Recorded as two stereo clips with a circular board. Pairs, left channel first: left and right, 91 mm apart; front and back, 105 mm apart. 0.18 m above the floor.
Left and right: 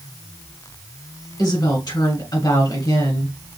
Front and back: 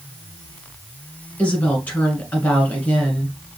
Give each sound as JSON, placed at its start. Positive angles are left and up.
{"t": 1.4, "sound": "a woman speaking", "azimuth_deg": 70, "distance_m": 1.8}